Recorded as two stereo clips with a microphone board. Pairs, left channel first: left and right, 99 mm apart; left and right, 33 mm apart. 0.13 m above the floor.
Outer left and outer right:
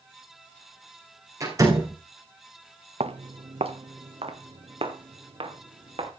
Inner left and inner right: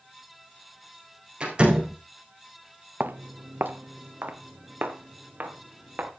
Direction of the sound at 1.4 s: 35° right (ahead or behind).